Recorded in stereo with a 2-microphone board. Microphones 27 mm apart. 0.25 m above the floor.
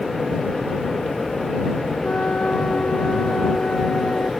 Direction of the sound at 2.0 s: 45° left (ahead or behind).